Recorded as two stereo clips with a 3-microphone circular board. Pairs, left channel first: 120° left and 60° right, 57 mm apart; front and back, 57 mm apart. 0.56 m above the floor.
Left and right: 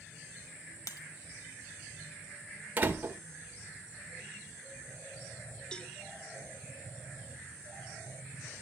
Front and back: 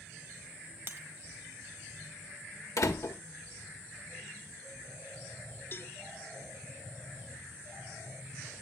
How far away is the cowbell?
About 0.6 m.